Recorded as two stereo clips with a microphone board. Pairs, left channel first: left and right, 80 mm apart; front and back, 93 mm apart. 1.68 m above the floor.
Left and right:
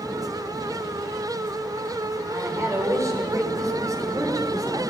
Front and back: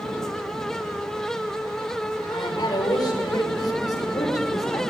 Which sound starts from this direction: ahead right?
A woman speaking, at 2.3 s.